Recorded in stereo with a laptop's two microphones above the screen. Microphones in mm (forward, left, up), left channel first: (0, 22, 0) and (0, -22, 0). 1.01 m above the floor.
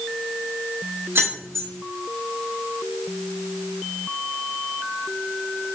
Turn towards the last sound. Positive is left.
turn(degrees=-75)  # may be behind; listen again after turning